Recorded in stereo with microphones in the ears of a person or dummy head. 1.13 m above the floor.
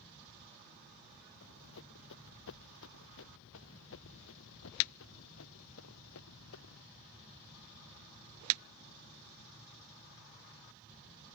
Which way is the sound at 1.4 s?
65° left (ahead or behind).